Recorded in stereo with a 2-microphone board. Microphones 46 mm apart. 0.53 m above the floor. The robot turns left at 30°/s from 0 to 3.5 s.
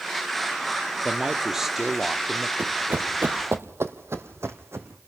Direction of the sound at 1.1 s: 15° right (ahead or behind).